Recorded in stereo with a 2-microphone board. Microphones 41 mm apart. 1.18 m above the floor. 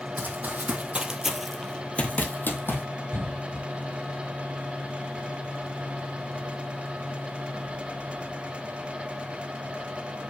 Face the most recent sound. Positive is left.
turn(degrees=70)  # may be behind; listen again after turning